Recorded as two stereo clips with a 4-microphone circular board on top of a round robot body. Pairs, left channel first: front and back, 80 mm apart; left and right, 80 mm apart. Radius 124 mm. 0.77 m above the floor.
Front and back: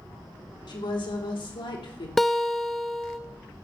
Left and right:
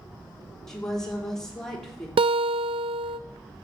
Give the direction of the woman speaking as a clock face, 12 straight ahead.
12 o'clock.